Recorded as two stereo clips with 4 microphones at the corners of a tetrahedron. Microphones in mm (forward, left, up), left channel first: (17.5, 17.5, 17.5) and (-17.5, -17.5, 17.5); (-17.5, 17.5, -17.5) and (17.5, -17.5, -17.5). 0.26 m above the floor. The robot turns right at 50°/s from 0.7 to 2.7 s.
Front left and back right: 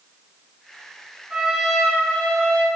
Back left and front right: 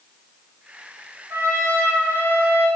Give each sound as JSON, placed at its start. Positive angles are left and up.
{"t": 1.3, "sound": "a trumpet", "azimuth_deg": -65, "distance_m": 2.5}